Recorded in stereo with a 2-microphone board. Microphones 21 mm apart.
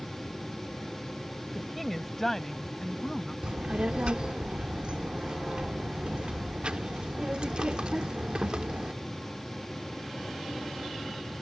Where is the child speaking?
45° right (ahead or behind).